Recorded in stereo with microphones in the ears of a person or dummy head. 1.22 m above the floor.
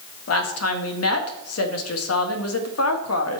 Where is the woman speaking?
85° left, 1.7 m.